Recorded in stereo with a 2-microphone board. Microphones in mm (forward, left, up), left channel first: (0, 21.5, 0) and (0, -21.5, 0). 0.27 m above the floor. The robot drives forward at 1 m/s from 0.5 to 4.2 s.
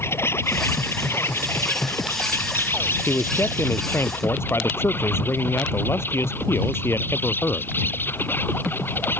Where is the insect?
70° left (ahead or behind); by 9.2 s 55° left (ahead or behind).